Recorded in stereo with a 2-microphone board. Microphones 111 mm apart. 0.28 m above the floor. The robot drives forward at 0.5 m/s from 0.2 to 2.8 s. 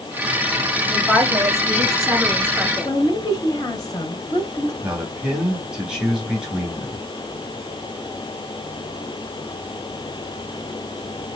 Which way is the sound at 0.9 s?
Centre (ahead or behind).